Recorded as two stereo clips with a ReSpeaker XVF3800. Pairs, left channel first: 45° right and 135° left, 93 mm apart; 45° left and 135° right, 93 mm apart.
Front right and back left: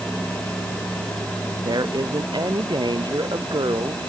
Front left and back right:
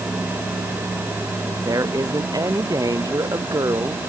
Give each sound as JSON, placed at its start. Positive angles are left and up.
{"t": 1.6, "sound": "a woman speaking", "azimuth_deg": 175}